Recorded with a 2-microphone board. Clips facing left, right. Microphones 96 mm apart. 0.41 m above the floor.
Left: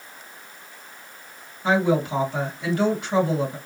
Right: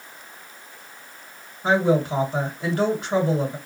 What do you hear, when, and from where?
1.6 s a woman speaking: 35° right (ahead or behind), 1.9 m